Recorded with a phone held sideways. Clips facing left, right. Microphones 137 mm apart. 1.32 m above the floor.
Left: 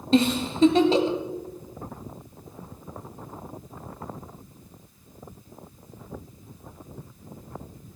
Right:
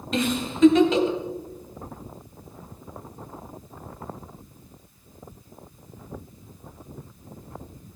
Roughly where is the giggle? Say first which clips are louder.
Left 5 dB; left.